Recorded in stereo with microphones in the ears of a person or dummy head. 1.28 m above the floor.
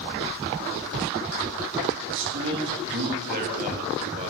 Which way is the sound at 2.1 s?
70° right (ahead or behind).